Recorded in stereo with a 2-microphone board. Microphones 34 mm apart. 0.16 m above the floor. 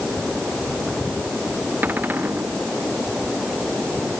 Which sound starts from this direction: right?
A cupboard door, at 1.8 s.